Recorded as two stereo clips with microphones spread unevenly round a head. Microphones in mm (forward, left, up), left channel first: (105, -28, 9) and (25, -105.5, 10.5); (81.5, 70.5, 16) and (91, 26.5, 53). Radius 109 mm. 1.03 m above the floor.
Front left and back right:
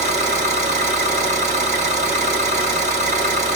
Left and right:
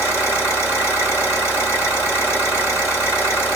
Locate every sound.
0.0 s an engine running: 175° right, 1.9 m